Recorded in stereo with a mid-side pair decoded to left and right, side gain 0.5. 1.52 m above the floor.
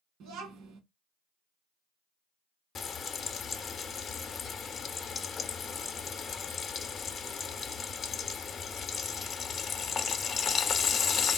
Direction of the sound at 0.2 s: 70° right.